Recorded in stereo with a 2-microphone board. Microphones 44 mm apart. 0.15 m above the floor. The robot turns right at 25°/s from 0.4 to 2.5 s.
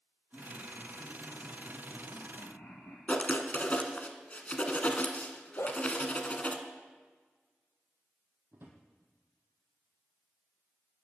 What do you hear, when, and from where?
0.3 s laughter: 25° left, 3.5 m; by 3.0 s 80° left, 3.5 m
3.1 s writing: 35° left (ahead or behind), 1.2 m
5.6 s a dog barking: 70° left (ahead or behind), 1.6 m
8.5 s a drawer: 55° right (ahead or behind), 2.5 m